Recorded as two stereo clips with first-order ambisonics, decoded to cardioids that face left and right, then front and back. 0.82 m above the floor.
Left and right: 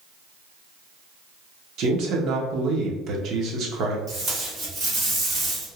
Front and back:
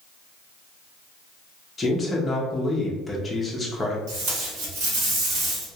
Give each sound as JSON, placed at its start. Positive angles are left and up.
{"t": 1.8, "sound": "a man speaking", "azimuth_deg": -70, "distance_m": 0.7}
{"t": 4.1, "sound": "tape being pulled", "azimuth_deg": -145, "distance_m": 1.3}